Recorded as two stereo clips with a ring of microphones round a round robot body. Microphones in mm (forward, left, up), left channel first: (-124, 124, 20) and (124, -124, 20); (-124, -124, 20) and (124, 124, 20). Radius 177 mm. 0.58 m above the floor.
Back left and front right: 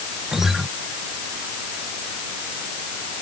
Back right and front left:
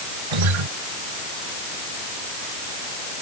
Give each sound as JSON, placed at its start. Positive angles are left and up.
{"t": 0.3, "sound": "a guitar", "azimuth_deg": 45}